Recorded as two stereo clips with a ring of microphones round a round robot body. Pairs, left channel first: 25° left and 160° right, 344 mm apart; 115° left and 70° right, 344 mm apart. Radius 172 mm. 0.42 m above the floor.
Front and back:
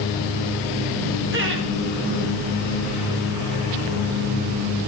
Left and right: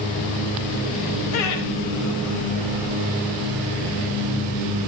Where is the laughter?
150° left, 1.8 m.